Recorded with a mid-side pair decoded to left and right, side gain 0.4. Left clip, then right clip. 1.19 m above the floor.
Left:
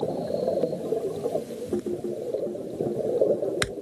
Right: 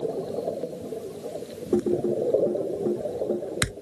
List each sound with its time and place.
1.7 s typing on a keyboard: 40° right